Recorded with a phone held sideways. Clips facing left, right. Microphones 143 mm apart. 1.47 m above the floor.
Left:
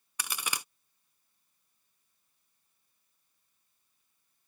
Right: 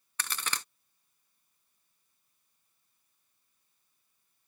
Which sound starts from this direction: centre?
A crack, at 0.2 s.